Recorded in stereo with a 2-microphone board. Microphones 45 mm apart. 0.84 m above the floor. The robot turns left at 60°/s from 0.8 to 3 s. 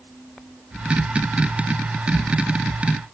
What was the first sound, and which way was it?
Only background noise.